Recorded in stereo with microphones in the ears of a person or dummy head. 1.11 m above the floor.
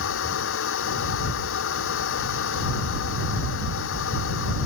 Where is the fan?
65° left (ahead or behind).